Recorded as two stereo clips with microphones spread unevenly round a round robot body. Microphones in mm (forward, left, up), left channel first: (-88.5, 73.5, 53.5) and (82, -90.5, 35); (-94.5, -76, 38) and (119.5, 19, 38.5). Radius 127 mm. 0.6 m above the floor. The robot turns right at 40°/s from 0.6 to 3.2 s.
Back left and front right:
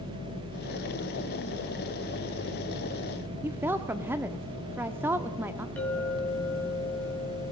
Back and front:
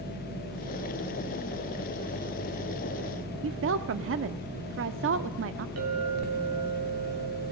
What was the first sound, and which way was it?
A woman speaking, 30° left.